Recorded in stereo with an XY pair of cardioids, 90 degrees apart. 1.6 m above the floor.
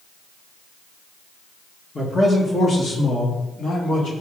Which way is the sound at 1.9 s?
30° left.